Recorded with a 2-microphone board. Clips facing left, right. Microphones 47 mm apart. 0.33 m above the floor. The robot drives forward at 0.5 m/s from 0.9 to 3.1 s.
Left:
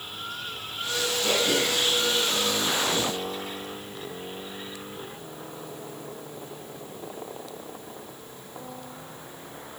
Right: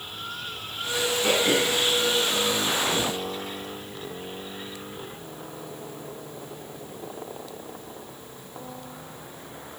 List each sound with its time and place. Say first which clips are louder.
1.2 s throat clearing: right 2 dB; 30° right (ahead or behind), 4 m; by 2.9 s 25° right (ahead or behind), 5 m